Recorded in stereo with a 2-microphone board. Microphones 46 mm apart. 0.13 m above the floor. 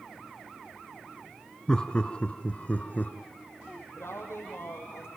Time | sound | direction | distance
1.7 | laughter | 15° left (ahead or behind) | 1.6 m
4.0 | a woman speaking | 75° left (ahead or behind) | 6 m